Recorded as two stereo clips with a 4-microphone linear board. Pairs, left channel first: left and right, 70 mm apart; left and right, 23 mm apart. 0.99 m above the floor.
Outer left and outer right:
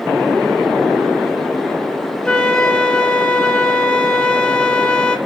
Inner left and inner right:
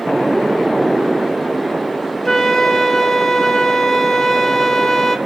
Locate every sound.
2.2 s a flute: 10° left (ahead or behind), 0.5 m